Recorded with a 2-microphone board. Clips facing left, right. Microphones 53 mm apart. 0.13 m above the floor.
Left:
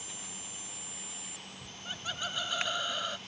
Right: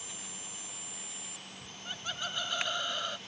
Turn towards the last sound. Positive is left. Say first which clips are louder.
# even
turn(degrees=5)  # may be behind; listen again after turning